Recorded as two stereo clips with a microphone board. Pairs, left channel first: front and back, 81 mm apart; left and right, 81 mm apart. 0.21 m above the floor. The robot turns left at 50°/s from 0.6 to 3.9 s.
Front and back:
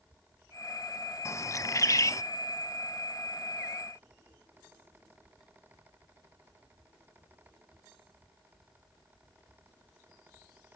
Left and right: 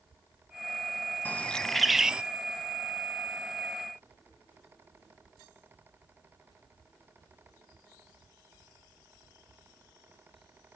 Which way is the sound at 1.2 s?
30° left.